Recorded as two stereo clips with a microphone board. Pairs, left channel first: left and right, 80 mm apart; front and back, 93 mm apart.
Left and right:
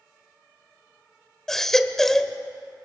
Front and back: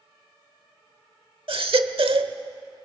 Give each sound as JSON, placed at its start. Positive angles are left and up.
{"t": 1.5, "sound": "a baby crying", "azimuth_deg": 175, "distance_m": 1.0}